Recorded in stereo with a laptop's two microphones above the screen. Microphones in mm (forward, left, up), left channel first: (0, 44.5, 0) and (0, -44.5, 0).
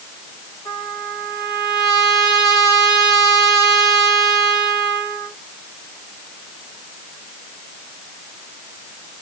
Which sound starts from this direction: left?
A trumpet, at 0.7 s.